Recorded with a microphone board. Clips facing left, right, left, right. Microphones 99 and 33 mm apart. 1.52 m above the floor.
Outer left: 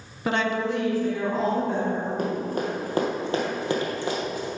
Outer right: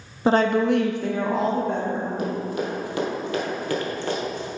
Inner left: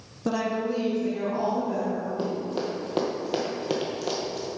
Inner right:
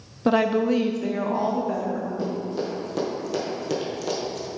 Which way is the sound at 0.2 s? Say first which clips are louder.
Outer right 6 dB, inner right 7 dB; 25° right (ahead or behind).